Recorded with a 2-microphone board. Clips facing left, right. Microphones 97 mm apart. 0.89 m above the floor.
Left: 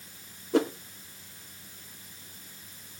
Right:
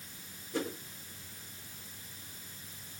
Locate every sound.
0.5 s a whoosh: 75° left (ahead or behind), 1.5 m